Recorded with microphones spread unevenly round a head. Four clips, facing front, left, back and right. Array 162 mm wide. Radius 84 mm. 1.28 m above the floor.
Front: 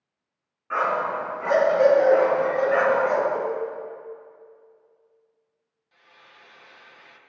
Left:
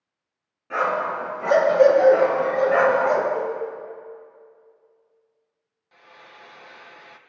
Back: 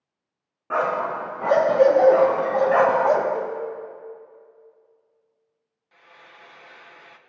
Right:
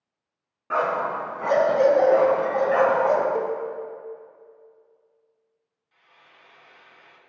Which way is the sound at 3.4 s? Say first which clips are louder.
Even, front 1 dB; 65° right.